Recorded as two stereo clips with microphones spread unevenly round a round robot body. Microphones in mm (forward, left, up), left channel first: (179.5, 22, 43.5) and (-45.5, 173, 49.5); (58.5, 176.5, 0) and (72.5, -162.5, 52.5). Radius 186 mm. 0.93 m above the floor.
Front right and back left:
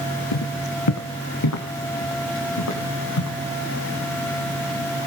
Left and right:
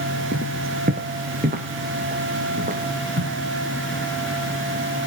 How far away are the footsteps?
About 2.5 m.